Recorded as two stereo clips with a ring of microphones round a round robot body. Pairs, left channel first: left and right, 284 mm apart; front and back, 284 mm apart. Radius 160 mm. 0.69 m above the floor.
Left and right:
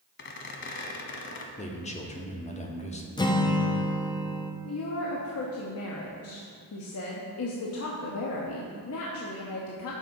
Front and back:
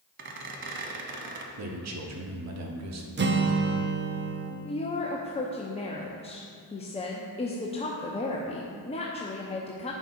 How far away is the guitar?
About 0.7 m.